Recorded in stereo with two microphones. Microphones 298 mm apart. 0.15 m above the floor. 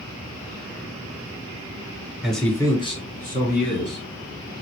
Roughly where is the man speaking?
Centre.